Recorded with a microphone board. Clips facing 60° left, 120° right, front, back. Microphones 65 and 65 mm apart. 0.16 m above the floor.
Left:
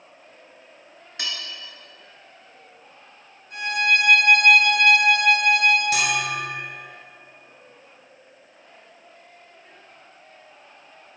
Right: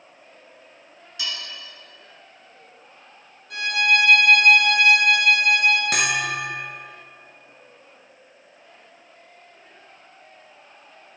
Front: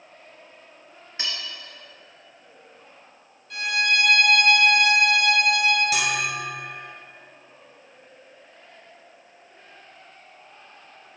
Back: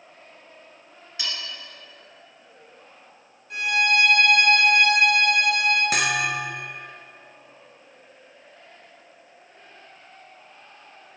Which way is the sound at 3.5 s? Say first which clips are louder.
Right 1 dB, back 2 dB; 115° right.